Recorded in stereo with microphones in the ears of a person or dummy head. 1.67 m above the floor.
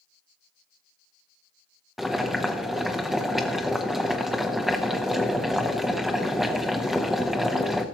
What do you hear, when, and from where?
2.0 s boiling: centre (ahead or behind), 0.8 m